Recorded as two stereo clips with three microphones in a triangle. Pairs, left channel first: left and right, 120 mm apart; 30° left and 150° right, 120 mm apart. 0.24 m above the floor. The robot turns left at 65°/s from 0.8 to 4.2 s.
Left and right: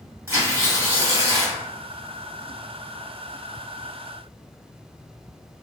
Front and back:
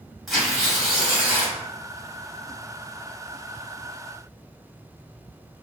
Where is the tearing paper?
60° right, 1.4 m; by 1.6 s 115° right, 1.4 m.